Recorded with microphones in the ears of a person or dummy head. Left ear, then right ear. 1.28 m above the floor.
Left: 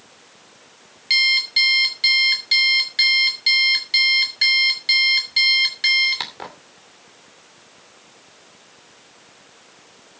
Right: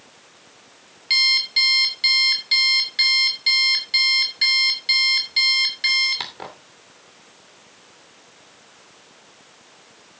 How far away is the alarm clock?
About 2.5 m.